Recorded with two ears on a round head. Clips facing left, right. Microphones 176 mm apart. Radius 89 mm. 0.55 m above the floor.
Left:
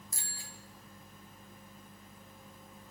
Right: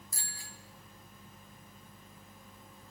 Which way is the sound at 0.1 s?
25° left (ahead or behind).